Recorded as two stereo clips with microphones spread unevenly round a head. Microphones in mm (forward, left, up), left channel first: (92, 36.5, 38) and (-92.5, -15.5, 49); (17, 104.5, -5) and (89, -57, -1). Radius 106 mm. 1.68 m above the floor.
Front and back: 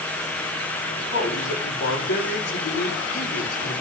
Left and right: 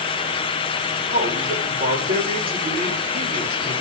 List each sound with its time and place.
0.9 s a man speaking: 25° right, 8 m